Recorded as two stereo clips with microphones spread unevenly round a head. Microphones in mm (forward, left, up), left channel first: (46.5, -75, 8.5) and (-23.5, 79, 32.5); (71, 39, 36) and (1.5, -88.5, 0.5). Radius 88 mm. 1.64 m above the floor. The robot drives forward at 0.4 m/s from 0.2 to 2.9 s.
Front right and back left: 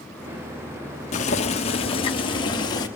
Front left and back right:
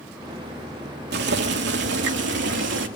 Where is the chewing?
I don't hear chewing.